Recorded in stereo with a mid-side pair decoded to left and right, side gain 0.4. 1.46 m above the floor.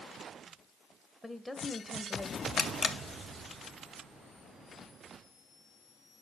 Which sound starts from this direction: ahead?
A woman speaking, at 1.2 s.